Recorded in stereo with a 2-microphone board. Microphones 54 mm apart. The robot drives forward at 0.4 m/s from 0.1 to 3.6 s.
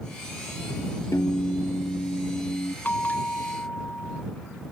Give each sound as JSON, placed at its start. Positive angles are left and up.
{"t": 1.1, "sound": "a piano", "side_deg": 70}
{"t": 2.9, "sound": "a bell", "side_deg": 30}